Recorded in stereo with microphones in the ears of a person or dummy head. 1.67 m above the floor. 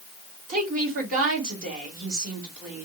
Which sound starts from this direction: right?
A woman speaking, at 0.5 s.